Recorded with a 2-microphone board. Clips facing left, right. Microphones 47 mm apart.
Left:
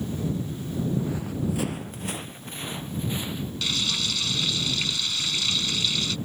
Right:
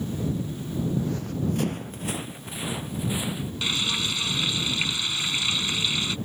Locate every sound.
1.0 s running footsteps: 15° left (ahead or behind); by 3.5 s 10° right (ahead or behind)
3.6 s frying: 20° right (ahead or behind)